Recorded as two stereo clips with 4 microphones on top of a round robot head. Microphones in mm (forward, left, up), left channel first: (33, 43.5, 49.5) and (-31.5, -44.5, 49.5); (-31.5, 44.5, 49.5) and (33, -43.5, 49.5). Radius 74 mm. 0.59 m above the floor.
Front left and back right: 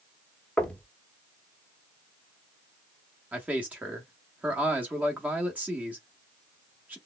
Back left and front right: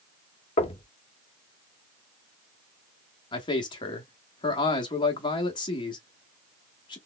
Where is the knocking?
135° left, 0.8 m.